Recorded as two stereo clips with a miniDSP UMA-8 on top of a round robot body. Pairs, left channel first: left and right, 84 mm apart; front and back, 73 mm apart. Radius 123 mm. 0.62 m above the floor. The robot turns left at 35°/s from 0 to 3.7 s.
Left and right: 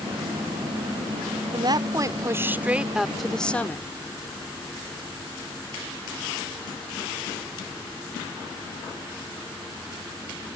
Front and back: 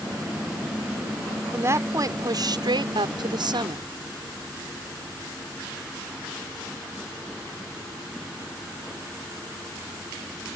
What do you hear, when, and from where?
1.5 s a woman speaking: 120° right; by 3.9 s 160° left